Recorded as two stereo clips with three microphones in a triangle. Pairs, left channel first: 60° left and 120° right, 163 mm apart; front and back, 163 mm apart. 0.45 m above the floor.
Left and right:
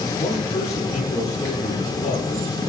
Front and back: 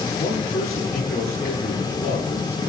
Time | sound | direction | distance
0.2 | a man speaking | 15° left | 8.5 m